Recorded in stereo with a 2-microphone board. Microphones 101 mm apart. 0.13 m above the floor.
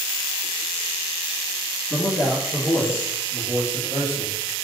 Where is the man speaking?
10° left (ahead or behind), 1.7 m; by 4.5 s 25° right (ahead or behind), 2.5 m.